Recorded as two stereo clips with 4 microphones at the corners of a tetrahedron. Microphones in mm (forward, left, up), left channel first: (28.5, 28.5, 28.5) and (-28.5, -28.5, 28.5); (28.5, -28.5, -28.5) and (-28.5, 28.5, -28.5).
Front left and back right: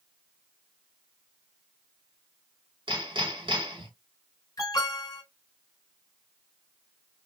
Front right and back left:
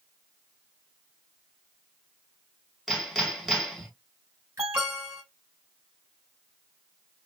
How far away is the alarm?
About 3 m.